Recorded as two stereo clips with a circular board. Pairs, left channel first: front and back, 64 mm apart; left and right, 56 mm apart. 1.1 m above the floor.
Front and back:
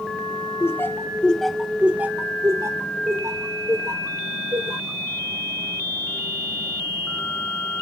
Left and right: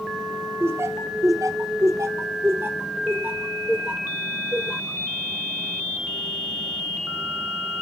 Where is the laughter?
50° right, 0.8 m; by 5.0 s 160° right, 2 m.